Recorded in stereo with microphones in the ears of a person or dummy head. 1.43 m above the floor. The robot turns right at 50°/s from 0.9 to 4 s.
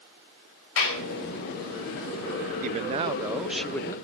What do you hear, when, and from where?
0.8 s a clap: 80° left, 5 m; by 1.0 s 85° left, 5 m
2.6 s a man speaking: 50° right, 0.5 m; by 4.0 s 20° left, 0.5 m